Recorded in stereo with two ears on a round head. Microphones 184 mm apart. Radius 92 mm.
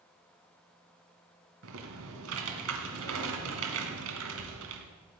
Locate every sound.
1.6 s typing on a keyboard: 80° right, 1.9 m